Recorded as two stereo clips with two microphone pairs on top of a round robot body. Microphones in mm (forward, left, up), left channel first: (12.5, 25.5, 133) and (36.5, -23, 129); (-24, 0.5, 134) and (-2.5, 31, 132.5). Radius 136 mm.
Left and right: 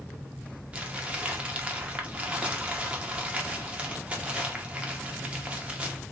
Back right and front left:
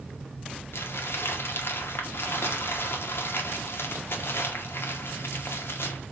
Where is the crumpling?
130° right, 1.1 m.